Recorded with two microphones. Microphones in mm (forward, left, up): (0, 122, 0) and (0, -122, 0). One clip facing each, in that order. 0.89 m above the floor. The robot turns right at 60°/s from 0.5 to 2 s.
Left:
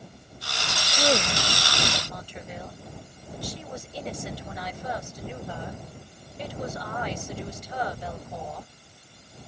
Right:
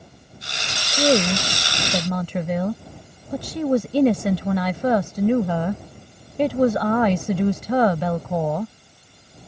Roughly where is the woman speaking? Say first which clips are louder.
Right 7 dB; behind right.